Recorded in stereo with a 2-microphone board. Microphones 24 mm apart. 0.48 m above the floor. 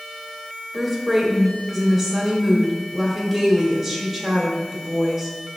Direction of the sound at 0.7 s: 5° right (ahead or behind).